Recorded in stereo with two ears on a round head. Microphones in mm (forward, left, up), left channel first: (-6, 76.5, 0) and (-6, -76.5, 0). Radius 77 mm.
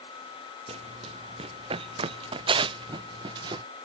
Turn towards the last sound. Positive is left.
turn(degrees=-25)  # may be behind; listen again after turning